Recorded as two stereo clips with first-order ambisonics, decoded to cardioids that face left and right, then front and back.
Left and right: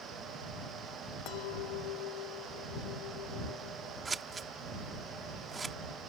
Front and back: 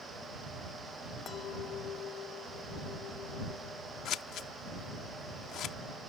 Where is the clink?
60° left.